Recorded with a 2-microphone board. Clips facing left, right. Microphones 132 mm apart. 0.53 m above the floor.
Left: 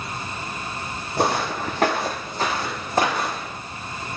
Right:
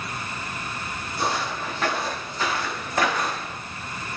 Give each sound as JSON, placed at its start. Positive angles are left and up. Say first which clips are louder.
{"t": 1.2, "sound": "footsteps", "louder": "left 5 dB", "side_deg": 65, "distance_m": 1.2}